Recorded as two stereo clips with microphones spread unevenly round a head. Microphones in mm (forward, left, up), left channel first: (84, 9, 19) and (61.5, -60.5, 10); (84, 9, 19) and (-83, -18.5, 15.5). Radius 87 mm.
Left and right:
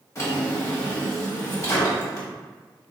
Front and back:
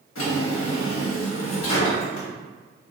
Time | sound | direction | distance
0.1 | a drawer | 25° left | 1.2 m